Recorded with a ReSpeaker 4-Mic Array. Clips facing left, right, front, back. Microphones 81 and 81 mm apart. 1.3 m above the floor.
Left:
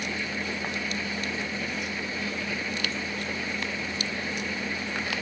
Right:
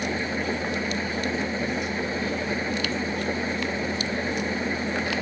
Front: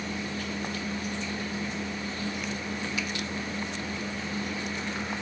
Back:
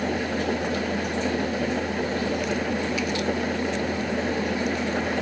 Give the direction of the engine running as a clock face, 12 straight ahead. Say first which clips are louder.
Right 5 dB, back 9 dB; 5 o'clock.